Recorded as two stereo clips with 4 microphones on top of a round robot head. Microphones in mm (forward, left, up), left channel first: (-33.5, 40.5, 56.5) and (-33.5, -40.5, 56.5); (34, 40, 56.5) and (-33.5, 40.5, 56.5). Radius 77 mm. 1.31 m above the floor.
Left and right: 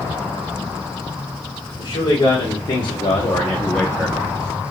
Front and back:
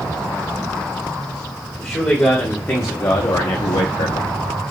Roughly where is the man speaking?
Ahead left.